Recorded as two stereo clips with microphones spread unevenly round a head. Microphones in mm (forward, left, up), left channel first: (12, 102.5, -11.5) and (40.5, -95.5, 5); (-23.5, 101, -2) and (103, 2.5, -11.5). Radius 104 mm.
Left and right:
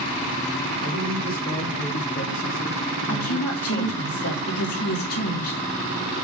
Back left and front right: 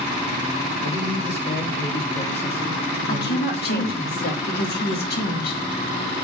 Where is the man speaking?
130° left, 3 m.